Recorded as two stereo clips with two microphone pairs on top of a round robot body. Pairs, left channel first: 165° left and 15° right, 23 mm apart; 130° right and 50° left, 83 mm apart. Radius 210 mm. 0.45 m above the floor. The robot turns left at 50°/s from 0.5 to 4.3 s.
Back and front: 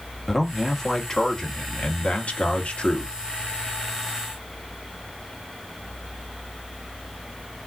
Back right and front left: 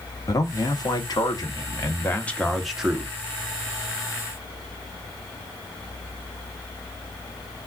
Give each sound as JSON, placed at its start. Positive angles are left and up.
{"t": 0.3, "sound": "a man speaking", "azimuth_deg": -105, "distance_m": 1.3}